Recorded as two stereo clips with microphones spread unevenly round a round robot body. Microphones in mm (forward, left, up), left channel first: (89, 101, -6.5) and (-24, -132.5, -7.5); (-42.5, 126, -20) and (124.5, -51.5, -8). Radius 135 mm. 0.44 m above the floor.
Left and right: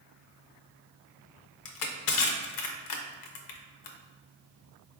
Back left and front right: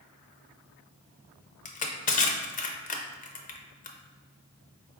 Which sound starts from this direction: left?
Crushing, at 1.6 s.